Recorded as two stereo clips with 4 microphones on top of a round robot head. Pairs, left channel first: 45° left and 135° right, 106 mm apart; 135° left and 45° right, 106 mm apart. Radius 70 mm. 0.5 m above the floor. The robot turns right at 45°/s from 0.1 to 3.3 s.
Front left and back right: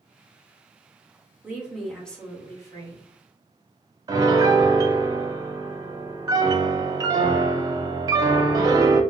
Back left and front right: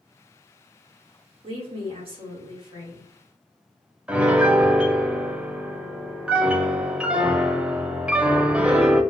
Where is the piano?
115° right, 0.7 m.